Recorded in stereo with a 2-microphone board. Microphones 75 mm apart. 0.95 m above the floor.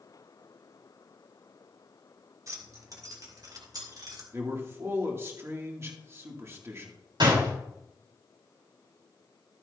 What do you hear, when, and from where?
2.5 s keys jangling: 45° right (ahead or behind), 1.8 m; by 4.2 s 55° right (ahead or behind), 3 m
4.3 s a man speaking: 35° right (ahead or behind), 2.5 m
7.2 s a door slam: 85° right, 5.5 m